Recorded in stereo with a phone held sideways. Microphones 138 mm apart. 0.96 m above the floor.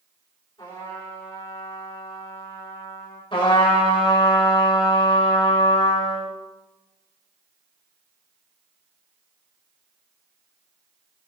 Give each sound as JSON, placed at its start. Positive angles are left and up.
{"t": 0.6, "sound": "a trumpet", "side_deg": 30, "distance_m": 4.0}
{"t": 3.3, "sound": "a trumpet", "side_deg": 40, "distance_m": 2.0}